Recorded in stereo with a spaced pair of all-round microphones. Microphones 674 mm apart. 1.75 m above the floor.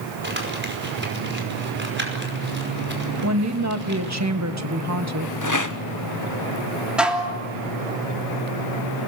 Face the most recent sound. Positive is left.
turn(degrees=0)  # may be behind; listen again after turning